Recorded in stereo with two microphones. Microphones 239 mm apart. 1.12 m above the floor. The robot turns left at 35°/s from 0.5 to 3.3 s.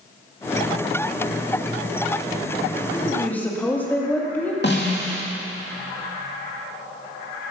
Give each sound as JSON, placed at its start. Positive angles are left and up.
{"t": 2.9, "sound": "a woman speaking", "side_deg": 20, "distance_m": 2.0}
{"t": 4.6, "sound": "a snare drum", "side_deg": 45, "distance_m": 2.0}